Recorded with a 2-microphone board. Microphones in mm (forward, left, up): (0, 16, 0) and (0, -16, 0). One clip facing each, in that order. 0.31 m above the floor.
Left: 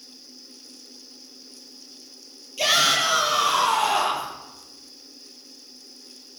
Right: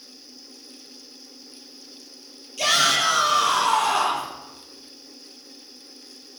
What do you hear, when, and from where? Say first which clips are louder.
2.6 s a shout: even; 10° left (ahead or behind), 9 m